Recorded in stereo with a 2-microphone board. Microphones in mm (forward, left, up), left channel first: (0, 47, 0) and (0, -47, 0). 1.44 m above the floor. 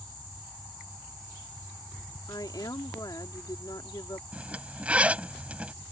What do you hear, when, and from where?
2.3 s a woman speaking: 45° left (ahead or behind)
4.3 s a zipper: 15° right (ahead or behind)